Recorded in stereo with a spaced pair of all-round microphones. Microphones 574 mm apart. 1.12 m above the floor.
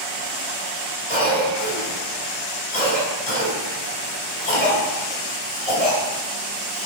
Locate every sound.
1.1 s a cough: 90° left, 2 m